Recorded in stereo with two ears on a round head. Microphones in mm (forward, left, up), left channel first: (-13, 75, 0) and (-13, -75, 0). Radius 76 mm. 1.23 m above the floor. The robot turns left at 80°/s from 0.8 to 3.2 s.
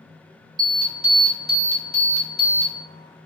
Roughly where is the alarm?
Behind right.